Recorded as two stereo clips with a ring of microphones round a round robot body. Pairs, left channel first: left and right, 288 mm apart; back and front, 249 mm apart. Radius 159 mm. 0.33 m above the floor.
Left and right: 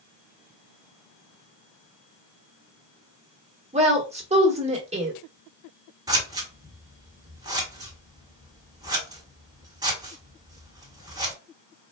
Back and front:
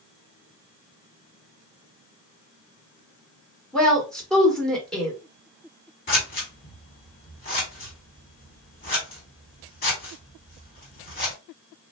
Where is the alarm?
I don't hear an alarm.